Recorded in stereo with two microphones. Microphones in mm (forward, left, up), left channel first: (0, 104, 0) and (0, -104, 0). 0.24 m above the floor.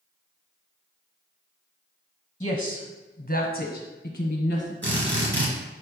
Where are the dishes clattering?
No dishes clattering in this recording.